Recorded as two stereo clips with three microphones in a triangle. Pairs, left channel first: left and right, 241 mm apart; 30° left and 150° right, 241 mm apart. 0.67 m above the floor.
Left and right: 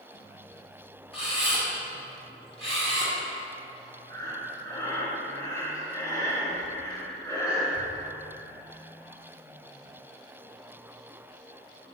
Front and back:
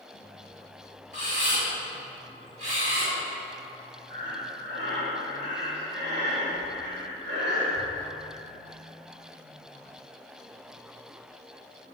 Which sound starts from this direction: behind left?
A camera shutter, at 1.1 s.